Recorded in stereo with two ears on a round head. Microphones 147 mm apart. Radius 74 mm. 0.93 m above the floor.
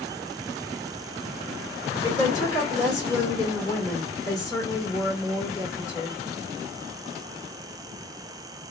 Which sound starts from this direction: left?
A woman speaking, at 2.0 s.